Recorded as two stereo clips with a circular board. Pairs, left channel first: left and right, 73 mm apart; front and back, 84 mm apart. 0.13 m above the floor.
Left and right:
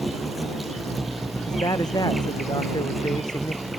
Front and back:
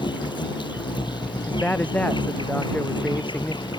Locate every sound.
0.0 s an insect: straight ahead
1.5 s a man speaking: 70° left